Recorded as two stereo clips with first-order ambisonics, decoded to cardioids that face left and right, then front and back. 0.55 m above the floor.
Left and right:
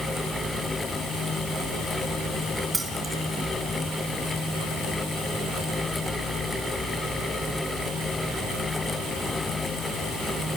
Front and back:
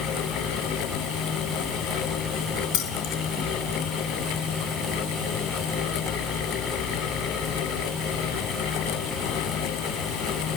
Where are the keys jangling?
10° right, 2.5 m.